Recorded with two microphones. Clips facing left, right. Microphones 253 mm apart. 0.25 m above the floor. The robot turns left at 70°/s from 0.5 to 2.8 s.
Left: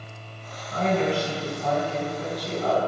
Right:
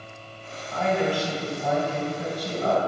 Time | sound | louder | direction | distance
0.7 | a woman speaking | left 1 dB | 60° left | 2 m